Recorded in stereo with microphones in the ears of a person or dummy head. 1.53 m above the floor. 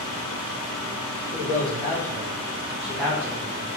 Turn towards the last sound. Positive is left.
turn(degrees=-30)  # may be behind; listen again after turning